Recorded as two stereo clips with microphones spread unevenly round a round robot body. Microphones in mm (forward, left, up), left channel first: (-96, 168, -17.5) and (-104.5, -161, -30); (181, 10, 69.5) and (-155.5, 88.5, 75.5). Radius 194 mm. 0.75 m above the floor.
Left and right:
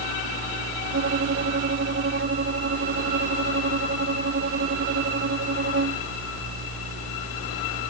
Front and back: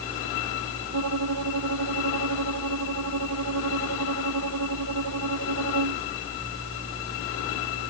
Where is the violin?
145° right.